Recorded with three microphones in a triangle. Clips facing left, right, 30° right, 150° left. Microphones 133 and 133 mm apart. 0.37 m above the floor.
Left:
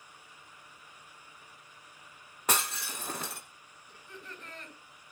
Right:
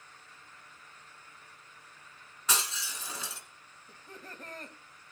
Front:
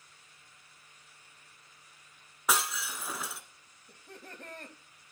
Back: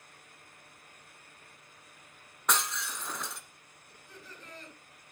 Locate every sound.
2.5 s breaking glass: 55° left, 1.2 m
3.9 s laughter: 45° right, 3 m